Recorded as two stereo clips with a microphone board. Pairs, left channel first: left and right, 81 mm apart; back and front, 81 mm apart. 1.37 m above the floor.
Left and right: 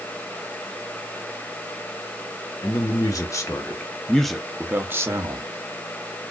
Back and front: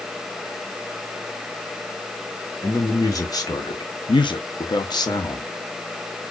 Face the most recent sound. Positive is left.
turn(degrees=-135)